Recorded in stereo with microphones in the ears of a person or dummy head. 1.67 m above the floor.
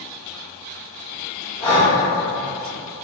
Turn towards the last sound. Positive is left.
turn(degrees=15)  # may be behind; listen again after turning